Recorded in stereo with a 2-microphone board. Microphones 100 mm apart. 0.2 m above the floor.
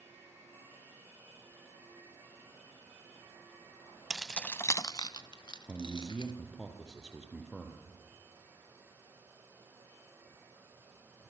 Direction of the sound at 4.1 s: 10° right (ahead or behind).